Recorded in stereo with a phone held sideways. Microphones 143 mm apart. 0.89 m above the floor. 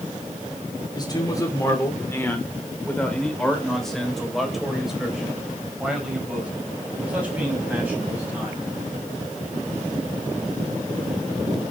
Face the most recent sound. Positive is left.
turn(degrees=-15)  # may be behind; listen again after turning